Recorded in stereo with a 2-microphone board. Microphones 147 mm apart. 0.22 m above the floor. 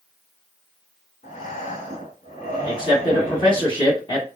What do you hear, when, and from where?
1.2 s breathing: 60° left (ahead or behind), 1.5 m
2.6 s a man speaking: 35° left (ahead or behind), 1.4 m